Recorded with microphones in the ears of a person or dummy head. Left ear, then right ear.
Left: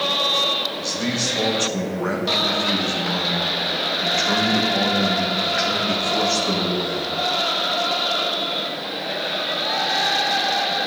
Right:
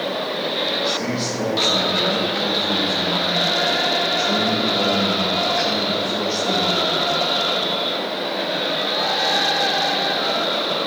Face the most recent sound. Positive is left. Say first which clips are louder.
# right 2 dB
turn(degrees=30)  # may be behind; listen again after turning